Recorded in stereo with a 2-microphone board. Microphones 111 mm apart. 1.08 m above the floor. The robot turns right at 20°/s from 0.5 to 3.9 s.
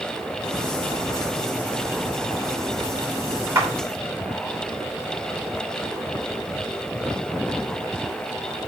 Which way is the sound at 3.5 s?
25° right (ahead or behind).